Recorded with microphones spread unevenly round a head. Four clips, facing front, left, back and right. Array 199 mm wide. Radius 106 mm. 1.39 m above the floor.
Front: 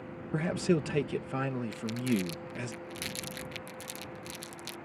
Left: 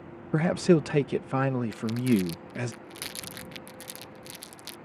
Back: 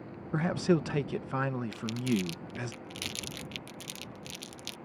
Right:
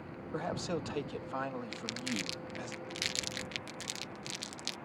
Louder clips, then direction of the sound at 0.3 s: Left 14 dB, back 1 dB; 95° left.